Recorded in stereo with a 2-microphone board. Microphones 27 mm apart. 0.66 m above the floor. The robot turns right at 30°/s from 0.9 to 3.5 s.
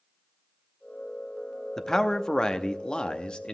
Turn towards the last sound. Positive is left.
turn(degrees=85)